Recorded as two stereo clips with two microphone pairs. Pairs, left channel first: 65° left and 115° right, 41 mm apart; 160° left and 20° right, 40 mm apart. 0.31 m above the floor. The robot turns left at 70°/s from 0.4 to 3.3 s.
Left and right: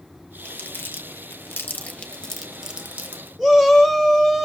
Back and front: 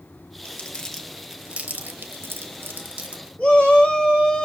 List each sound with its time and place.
0.5 s crumpling: 115° left, 0.9 m; by 3.3 s 85° right, 0.9 m
3.4 s a shout: 145° left, 1.4 m